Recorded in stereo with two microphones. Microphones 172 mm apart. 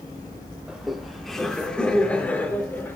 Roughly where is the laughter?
Centre.